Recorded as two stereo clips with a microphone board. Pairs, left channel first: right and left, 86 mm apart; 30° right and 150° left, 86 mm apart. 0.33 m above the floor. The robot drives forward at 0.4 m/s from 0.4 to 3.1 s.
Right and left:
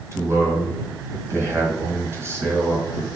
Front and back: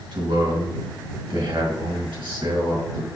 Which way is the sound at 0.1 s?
145° left.